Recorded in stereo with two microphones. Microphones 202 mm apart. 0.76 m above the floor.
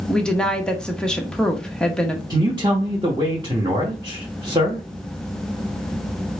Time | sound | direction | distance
0.1 | a woman speaking | 5° left (ahead or behind) | 0.9 m
2.3 | a man speaking | 20° right (ahead or behind) | 1.0 m